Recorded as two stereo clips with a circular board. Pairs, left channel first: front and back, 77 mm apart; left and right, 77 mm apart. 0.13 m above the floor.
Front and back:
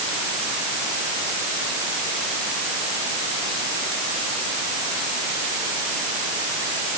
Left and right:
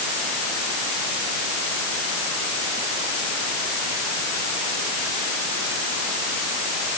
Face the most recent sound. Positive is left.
No sound to turn to.